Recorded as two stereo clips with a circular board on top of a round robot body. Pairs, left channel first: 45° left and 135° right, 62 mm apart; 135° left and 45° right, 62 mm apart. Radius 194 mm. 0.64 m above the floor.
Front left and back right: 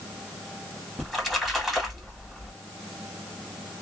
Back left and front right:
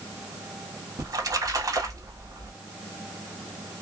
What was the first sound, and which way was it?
A splash, 45° right.